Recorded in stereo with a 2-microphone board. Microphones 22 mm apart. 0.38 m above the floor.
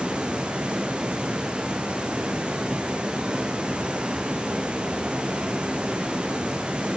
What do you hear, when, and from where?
0.0 s running water: 45° right (ahead or behind), 4.5 m